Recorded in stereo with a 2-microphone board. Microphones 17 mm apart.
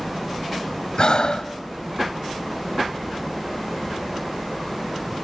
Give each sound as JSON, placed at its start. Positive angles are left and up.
{"t": 1.0, "sound": "breathing", "side_deg": 55, "distance_m": 0.9}